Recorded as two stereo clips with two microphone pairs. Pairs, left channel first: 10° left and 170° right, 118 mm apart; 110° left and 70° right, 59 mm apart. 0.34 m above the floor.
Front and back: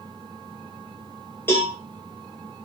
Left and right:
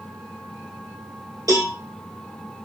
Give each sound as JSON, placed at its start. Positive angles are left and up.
{"t": 1.5, "sound": "a cowbell", "azimuth_deg": -60, "distance_m": 2.5}